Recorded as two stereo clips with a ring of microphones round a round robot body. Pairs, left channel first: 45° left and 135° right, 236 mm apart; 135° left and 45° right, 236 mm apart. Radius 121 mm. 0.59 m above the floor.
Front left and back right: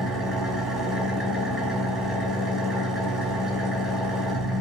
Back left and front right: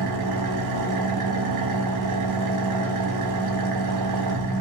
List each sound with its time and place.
0.0 s an engine running: 45° right, 0.7 m